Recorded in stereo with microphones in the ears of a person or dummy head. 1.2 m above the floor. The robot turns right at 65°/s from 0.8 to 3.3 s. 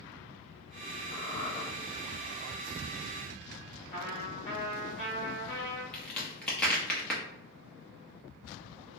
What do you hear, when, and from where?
1.1 s a squeak: 115° left, 1.1 m; by 1.6 s 150° left, 1.1 m
3.9 s a trumpet: 25° left (ahead or behind), 1.8 m
5.9 s a crack: centre (ahead or behind), 0.9 m